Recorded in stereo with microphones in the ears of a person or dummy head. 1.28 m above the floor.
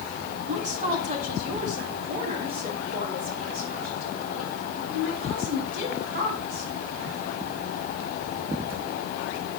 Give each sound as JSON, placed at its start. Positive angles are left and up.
{"t": 0.5, "sound": "a woman speaking", "side_deg": -45, "distance_m": 1.9}